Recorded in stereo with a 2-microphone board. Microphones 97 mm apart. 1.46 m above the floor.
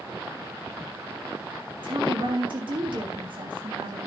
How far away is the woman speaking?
About 3 m.